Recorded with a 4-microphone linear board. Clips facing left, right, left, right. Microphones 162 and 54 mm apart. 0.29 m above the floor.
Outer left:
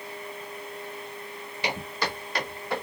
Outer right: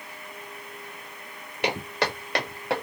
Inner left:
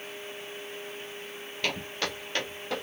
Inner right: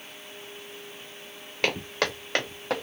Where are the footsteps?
65° right (ahead or behind), 2 m; by 2.8 s 75° right (ahead or behind), 2.5 m.